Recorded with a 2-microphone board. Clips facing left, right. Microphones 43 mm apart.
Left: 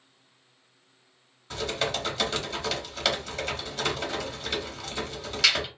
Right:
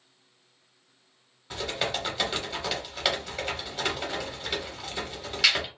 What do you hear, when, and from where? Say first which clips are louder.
1.5 s typing on a keyboard: left 1 dB; 10° right (ahead or behind), 1.1 m